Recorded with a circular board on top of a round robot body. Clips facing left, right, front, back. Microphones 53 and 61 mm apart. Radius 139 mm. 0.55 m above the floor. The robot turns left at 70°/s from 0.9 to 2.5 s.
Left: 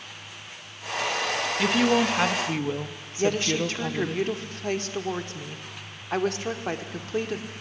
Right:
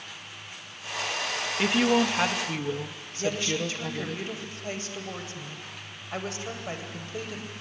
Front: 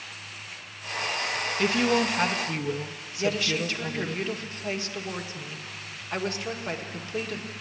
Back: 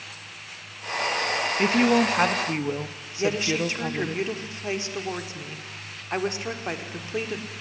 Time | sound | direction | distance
1.6 | a woman speaking | 150° right | 1.1 m
3.2 | a woman speaking | 115° left | 1.9 m